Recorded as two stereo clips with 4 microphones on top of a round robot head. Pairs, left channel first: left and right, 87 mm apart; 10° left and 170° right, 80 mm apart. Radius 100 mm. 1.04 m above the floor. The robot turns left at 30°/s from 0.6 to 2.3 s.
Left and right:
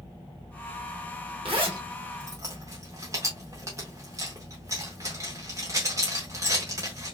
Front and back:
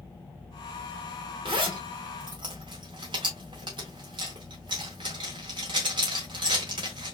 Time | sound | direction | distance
1.4 | a zipper | 125° right | 0.7 m